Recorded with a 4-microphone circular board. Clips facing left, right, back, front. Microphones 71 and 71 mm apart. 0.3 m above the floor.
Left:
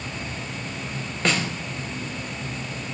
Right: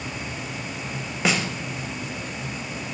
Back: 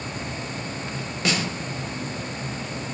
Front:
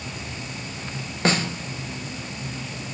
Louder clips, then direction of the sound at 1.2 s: Even, front 3 dB; 10° right.